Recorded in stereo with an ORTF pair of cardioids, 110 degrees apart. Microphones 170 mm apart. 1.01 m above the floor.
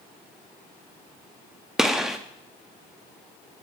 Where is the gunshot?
5° right, 0.7 m.